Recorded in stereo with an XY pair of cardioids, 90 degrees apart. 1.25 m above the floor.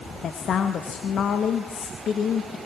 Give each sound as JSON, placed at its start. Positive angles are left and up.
{"t": 0.2, "sound": "a woman speaking", "azimuth_deg": 60, "distance_m": 2.0}